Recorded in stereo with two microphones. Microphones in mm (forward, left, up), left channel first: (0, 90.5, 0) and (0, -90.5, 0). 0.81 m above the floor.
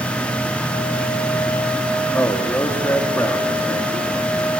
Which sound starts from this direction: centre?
A man speaking, at 2.1 s.